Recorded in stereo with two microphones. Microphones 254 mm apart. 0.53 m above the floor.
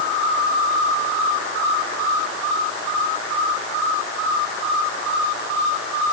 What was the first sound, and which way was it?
Only background noise.